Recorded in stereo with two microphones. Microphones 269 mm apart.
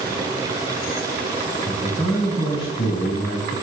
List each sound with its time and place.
1.6 s a man speaking: 20° left (ahead or behind), 1.4 m